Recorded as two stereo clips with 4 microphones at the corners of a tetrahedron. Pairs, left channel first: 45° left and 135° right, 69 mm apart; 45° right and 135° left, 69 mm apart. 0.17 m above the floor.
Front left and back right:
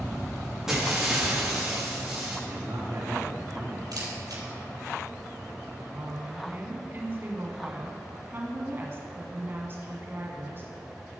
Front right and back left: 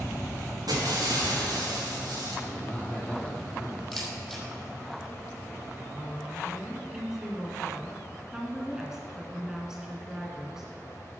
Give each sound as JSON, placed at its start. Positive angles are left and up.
{"t": 0.7, "sound": "breaking glass", "azimuth_deg": 145, "distance_m": 5.0}
{"t": 2.5, "sound": "a man speaking", "azimuth_deg": -120, "distance_m": 2.5}
{"t": 3.9, "sound": "a camera shutter", "azimuth_deg": -135, "distance_m": 4.0}
{"t": 5.9, "sound": "a woman speaking", "azimuth_deg": -150, "distance_m": 1.6}